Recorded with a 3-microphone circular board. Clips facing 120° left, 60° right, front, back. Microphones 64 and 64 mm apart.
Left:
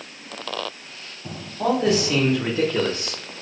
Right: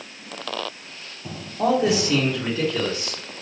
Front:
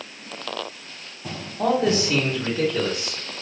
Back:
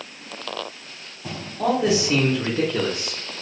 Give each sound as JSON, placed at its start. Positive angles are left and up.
{"t": 1.6, "sound": "a man speaking", "azimuth_deg": -75, "distance_m": 1.0}